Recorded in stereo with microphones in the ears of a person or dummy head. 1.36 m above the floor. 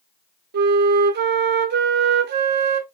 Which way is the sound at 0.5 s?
40° right (ahead or behind).